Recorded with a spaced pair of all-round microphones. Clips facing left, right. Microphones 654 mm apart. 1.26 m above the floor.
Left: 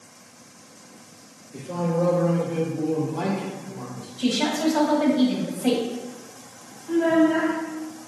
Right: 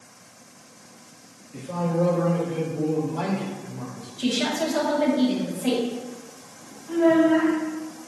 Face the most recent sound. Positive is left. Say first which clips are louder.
# right 1 dB
turn(degrees=-35)  # may be behind; listen again after turning